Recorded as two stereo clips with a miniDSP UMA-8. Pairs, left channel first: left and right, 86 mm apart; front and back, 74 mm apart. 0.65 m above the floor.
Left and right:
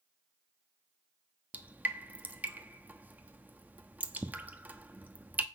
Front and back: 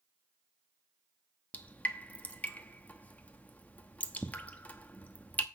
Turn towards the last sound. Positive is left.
turn(degrees=-45)